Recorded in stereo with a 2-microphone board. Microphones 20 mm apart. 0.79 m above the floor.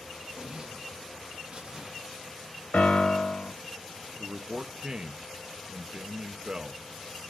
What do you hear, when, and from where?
0.4 s a zipper: 40° right (ahead or behind), 1.2 m
2.7 s a piano: 80° left, 0.8 m
4.2 s a man speaking: 30° right (ahead or behind), 0.5 m